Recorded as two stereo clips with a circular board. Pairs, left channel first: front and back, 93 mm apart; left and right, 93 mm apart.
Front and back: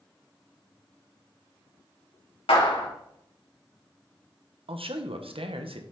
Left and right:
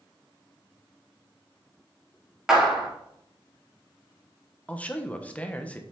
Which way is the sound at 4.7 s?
165° left.